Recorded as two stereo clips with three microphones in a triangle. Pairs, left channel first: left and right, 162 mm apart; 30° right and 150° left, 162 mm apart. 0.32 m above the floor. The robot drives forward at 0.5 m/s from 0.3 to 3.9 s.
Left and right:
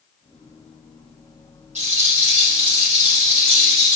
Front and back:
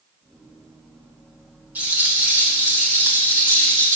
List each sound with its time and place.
1.8 s a rattle: 130° right, 6 m; by 4.0 s 135° right, 7 m